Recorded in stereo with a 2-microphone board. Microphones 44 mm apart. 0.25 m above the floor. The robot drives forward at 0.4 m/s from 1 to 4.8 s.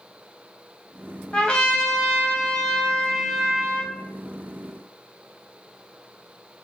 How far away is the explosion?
I don't hear an explosion.